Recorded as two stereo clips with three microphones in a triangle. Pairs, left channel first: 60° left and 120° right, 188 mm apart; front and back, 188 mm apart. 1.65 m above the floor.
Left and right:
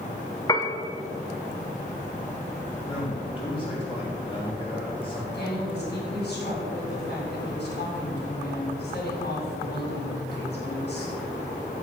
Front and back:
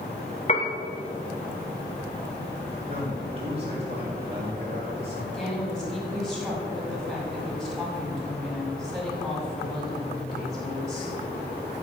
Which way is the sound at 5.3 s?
90° left.